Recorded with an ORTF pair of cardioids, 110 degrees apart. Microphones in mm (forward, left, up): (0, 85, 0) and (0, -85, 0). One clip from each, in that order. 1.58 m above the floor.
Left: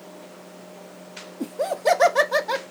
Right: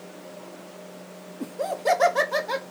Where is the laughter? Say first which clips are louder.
Left 3 dB; 20° left, 0.6 m.